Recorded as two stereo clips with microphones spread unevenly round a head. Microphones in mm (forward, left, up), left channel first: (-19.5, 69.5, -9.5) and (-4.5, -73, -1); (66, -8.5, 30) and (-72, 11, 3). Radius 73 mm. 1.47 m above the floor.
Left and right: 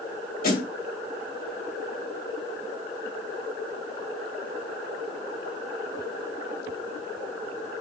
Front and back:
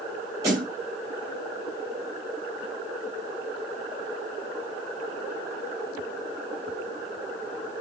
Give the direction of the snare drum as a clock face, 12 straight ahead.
9 o'clock.